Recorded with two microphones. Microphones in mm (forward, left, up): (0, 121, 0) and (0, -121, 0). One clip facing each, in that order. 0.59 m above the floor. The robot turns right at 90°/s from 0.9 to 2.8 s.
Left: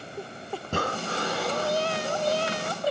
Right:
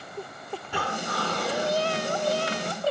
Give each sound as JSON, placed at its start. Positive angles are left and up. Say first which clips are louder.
{"t": 0.6, "sound": "breathing", "louder": "left 3 dB", "azimuth_deg": 130, "distance_m": 1.0}